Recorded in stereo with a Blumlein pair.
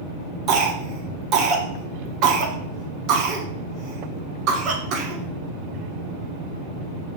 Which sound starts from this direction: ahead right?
A cough, at 0.5 s.